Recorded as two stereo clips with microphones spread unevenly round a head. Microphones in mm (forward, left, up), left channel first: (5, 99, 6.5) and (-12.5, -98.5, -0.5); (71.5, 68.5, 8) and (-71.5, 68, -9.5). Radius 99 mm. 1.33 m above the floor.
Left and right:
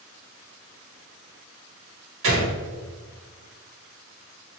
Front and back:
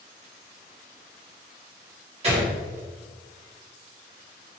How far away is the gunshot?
About 1.8 m.